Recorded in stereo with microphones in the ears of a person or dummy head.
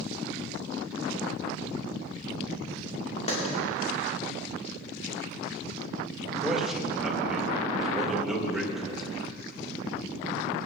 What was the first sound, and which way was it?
A clap, 40° left (ahead or behind).